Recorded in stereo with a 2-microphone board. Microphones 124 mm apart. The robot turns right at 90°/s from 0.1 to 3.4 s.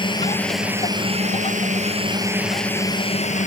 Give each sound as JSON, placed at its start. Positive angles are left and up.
{"t": 0.0, "sound": "a drone", "azimuth_deg": 140}